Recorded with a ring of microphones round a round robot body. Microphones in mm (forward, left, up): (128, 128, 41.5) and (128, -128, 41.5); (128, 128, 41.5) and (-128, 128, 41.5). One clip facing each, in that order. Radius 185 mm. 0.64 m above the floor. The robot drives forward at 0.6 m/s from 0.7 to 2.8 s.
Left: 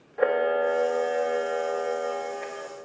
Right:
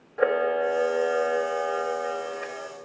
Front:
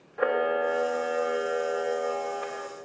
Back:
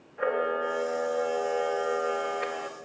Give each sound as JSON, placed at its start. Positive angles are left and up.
{"t": 0.2, "sound": "a camera shutter", "azimuth_deg": -10, "distance_m": 1.0}